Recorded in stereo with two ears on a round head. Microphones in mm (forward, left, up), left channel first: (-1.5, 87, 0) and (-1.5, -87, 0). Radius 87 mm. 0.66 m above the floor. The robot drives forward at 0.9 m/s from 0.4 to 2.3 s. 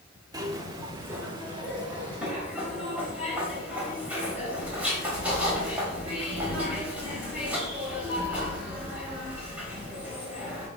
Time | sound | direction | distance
0.3 | a zipper | 20° right (ahead or behind) | 1.0 m